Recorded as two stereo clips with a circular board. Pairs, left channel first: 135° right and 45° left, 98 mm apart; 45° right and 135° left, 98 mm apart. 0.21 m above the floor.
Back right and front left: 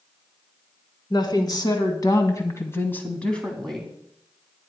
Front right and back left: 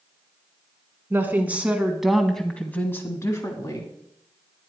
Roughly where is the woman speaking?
Behind.